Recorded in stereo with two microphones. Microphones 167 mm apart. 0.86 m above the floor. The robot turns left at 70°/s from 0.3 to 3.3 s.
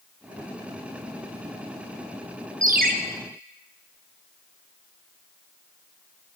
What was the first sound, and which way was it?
A ringtone, 50° right (ahead or behind).